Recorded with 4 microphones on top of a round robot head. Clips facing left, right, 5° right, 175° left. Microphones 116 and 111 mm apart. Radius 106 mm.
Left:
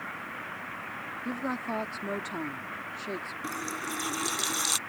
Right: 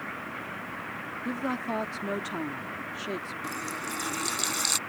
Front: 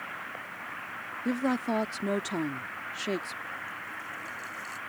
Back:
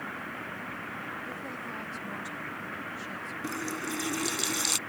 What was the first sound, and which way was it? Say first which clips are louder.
A woman speaking: right 2 dB, front 11 dB; 5° right.